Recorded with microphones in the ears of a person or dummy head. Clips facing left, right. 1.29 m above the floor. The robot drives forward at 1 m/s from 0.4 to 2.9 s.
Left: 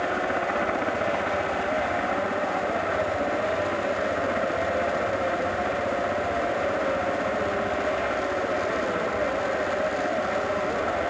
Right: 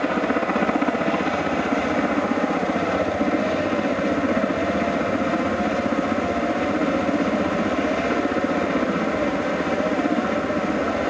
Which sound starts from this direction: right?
A helicopter, at 0.0 s.